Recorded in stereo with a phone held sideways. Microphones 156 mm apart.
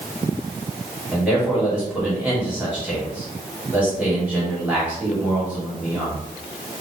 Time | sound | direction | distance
1.1 | a man speaking | 10° right (ahead or behind) | 2.0 m